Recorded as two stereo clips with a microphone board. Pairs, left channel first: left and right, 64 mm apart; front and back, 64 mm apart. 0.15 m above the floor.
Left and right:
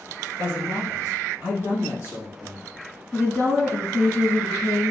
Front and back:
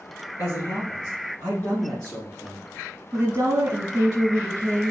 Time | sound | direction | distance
0.4 | a man speaking | 30° left | 1.8 m
3.1 | a woman speaking | 170° left | 1.5 m